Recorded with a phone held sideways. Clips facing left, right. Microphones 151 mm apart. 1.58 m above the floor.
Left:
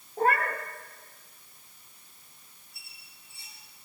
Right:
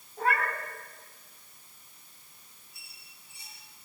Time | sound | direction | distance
0.2 | a cat meowing | 40° left (ahead or behind) | 1.3 m
2.7 | a squeak | 20° right (ahead or behind) | 7.5 m